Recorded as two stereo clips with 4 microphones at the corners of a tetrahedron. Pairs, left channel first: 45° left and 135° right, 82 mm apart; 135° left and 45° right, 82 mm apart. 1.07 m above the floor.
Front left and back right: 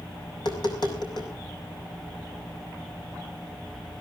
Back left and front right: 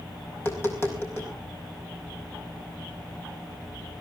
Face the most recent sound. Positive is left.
turn(degrees=75)